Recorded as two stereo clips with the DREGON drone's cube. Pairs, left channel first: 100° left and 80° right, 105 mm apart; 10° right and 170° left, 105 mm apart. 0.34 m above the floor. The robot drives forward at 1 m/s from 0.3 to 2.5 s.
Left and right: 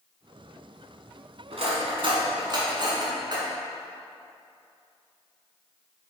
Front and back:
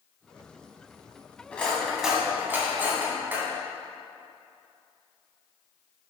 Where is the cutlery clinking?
85° right, 1.7 m; by 3.5 s 120° right, 2.0 m.